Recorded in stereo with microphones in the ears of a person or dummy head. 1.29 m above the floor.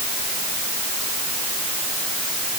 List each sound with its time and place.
Only background noise.